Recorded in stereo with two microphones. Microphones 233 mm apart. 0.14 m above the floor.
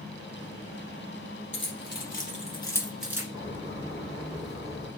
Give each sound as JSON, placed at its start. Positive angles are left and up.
{"t": 1.5, "sound": "keys jangling", "side_deg": 55, "distance_m": 2.0}
{"t": 3.3, "sound": "a bird", "side_deg": 15, "distance_m": 1.8}